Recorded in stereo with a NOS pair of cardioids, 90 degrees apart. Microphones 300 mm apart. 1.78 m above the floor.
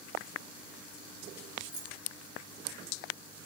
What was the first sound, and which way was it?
Keys jangling, 65° right.